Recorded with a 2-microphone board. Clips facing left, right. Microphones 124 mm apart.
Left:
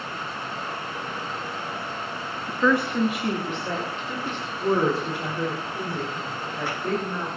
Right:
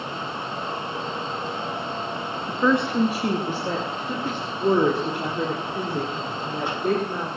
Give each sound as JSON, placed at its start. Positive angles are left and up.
{"t": 2.5, "sound": "a woman speaking", "side_deg": -15, "distance_m": 1.4}